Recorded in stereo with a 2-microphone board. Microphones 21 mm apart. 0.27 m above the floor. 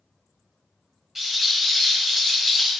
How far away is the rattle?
About 1.7 m.